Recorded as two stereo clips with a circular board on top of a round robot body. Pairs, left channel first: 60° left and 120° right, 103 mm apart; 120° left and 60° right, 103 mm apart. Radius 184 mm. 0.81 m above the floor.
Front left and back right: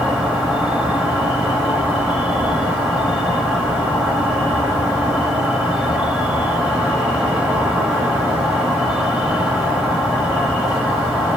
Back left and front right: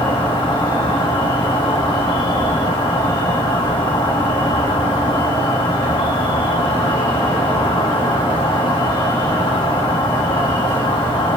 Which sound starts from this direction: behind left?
An insect, at 0.0 s.